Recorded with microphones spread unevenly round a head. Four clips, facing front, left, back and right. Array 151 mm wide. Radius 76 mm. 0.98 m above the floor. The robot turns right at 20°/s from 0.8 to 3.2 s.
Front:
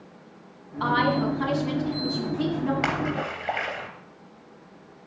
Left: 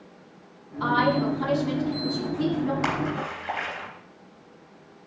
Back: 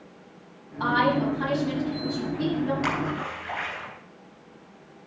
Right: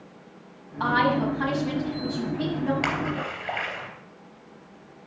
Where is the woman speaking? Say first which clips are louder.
Even, even; 105° right, 7 m; by 2.7 s 65° right, 7 m.